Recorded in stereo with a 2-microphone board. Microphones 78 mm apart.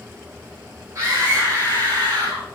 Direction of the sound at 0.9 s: 45° right (ahead or behind).